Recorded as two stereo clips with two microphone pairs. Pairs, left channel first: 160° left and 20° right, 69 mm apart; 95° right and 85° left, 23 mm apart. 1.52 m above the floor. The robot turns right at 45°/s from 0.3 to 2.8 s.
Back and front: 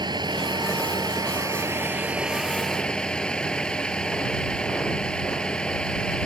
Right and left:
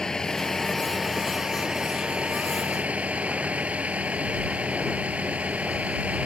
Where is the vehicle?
30° right; by 6.3 s 80° left.